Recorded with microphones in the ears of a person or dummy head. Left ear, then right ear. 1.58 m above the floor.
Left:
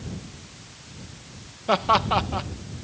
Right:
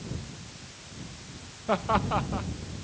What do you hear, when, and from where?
1.7 s laughter: 85° left